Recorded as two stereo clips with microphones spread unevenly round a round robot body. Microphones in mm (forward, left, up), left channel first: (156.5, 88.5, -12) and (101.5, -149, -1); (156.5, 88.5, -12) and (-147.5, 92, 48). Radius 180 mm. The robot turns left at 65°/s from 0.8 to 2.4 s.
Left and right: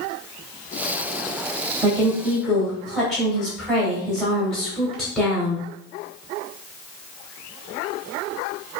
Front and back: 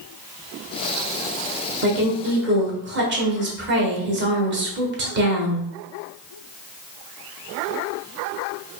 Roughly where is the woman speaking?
Behind.